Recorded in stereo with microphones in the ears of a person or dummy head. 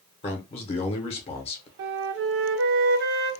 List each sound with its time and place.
0.2 s a man speaking: 30° left (ahead or behind), 0.7 m
1.8 s a flute: 65° right (ahead or behind), 0.6 m